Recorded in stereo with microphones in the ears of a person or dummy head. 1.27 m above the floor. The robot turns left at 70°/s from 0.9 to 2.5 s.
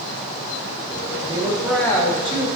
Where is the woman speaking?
145° right, 1.8 m; by 2.5 s 125° left, 1.8 m.